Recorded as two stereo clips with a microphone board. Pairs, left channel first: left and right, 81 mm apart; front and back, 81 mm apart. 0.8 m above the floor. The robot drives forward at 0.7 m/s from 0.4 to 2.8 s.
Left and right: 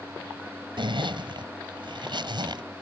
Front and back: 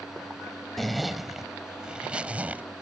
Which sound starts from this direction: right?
A zipper, at 0.8 s.